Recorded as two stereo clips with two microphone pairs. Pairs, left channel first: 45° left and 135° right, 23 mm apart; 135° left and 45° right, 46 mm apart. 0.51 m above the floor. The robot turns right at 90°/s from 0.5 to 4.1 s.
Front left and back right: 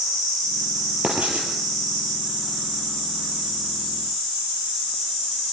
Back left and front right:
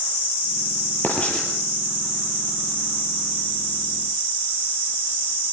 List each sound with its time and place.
1.0 s writing: 175° right, 6 m; by 1.5 s 135° right, 6 m